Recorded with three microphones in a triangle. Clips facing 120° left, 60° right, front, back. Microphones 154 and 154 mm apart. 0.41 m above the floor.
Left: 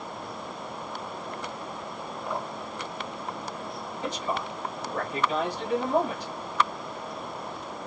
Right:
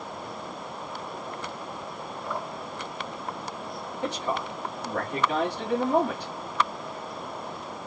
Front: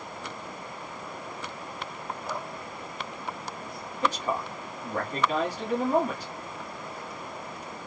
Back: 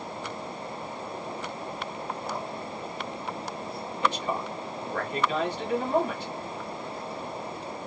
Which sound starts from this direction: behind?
Dripping, at 2.3 s.